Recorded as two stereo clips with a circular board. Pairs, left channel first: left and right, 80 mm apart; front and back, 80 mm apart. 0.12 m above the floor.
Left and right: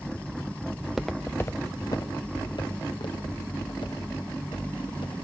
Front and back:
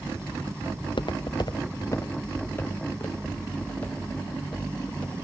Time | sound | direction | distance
0.8 | footsteps | 15° right | 0.9 m